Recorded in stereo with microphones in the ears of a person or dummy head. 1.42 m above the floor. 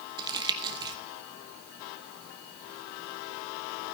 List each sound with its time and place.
0.2 s crumpling: 20° right (ahead or behind), 0.9 m